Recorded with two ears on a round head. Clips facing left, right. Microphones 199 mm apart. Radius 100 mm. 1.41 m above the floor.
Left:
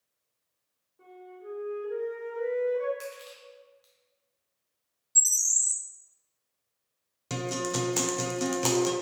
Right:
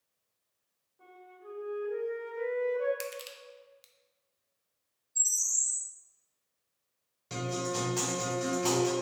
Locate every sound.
1.0 s a flute: 35° left (ahead or behind), 1.7 m
3.0 s crushing: 35° right (ahead or behind), 0.5 m
5.2 s a bird: 70° left (ahead or behind), 0.6 m
7.3 s a guitar: 65° left (ahead or behind), 0.7 m